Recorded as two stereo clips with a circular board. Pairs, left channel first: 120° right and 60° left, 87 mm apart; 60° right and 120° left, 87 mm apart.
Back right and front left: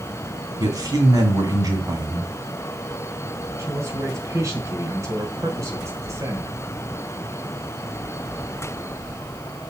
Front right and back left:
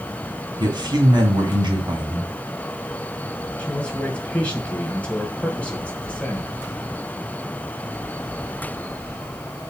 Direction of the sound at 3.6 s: 15° left.